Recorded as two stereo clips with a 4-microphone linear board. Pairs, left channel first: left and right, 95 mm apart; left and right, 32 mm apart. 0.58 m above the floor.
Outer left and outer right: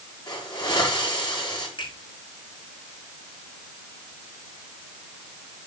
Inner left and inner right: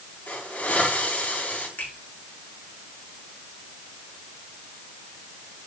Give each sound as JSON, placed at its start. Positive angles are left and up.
{"t": 0.3, "sound": "a hiss", "side_deg": 45, "distance_m": 8.0}
{"t": 1.8, "sound": "a finger snap", "side_deg": 65, "distance_m": 5.5}